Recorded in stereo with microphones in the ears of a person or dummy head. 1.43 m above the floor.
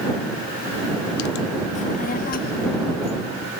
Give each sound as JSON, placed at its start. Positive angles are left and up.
{"t": 1.8, "sound": "a child speaking", "side_deg": 35}